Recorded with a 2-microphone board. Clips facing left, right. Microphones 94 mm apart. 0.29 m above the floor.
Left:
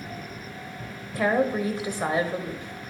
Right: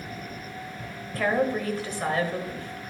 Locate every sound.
1.1 s a woman speaking: 15° left (ahead or behind), 1.0 m